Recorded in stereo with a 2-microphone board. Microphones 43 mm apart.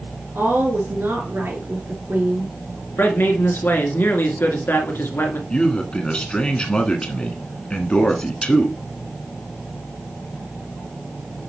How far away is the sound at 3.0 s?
About 1.9 m.